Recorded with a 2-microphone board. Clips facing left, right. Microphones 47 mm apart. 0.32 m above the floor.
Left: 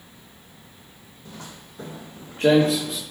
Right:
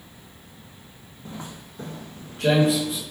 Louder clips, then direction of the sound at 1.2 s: Right 3 dB; 30° right (ahead or behind).